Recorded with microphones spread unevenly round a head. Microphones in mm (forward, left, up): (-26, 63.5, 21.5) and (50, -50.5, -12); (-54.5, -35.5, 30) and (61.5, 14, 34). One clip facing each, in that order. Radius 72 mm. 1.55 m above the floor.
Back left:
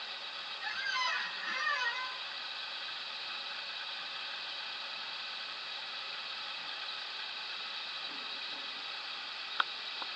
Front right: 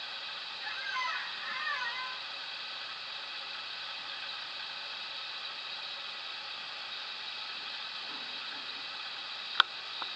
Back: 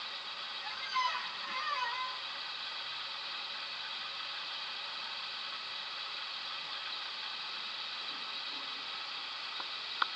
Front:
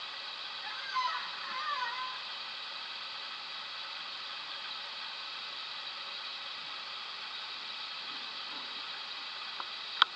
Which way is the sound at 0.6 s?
125° left.